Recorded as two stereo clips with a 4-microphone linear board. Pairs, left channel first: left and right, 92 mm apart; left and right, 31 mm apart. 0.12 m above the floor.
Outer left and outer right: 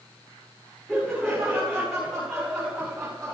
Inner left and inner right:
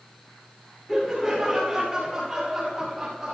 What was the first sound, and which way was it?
Laughter, centre (ahead or behind).